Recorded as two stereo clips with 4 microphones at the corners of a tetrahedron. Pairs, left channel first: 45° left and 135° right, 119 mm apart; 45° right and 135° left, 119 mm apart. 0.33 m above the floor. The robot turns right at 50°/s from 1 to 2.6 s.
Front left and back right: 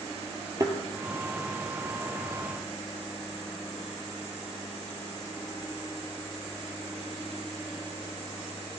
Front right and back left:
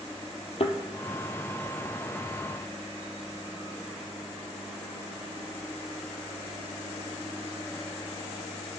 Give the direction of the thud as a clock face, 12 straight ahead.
3 o'clock.